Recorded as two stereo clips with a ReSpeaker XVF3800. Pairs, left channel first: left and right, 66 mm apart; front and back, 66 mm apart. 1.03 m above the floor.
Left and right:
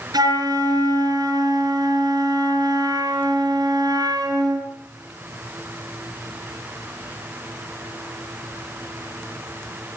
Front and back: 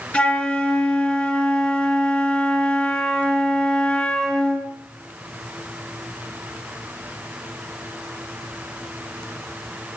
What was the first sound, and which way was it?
A flute, 75° right.